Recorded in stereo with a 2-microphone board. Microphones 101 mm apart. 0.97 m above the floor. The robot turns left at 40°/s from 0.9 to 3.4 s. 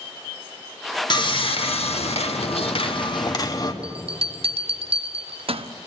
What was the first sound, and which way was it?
Sawing, 130° left.